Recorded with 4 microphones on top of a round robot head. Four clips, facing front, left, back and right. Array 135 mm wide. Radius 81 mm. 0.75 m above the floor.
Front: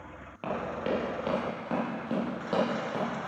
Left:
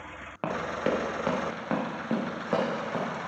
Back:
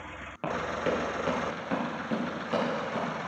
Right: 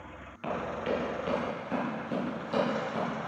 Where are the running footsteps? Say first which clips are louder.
Left 3 dB, back 2 dB; 90° left, 4 m; by 3.1 s 65° left, 7 m.